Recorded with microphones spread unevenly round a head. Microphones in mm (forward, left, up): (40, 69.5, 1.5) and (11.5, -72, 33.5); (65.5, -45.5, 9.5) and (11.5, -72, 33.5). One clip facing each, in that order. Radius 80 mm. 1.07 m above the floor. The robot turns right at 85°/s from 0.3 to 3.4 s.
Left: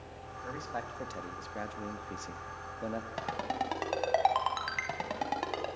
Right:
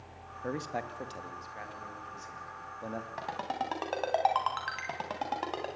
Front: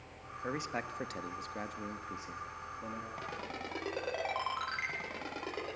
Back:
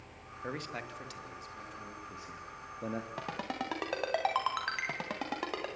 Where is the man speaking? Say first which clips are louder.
Right 4 dB, front 2 dB; 60° right, 1.9 m; by 3.1 s 165° left, 1.9 m.